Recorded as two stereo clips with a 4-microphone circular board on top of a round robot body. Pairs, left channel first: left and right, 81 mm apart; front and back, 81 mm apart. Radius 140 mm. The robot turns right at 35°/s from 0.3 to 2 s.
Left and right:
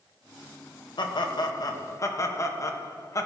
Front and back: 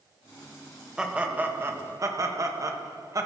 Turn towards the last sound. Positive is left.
turn(degrees=135)